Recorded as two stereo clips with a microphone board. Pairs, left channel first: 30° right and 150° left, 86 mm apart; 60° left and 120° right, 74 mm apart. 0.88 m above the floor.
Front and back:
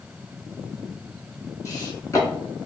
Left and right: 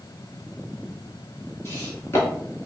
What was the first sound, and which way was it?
Footsteps, 15° left.